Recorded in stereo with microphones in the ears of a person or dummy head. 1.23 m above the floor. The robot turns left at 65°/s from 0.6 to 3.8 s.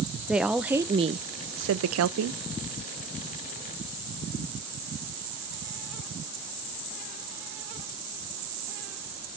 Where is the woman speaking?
5° right, 0.5 m; by 2.4 s 120° right, 0.5 m.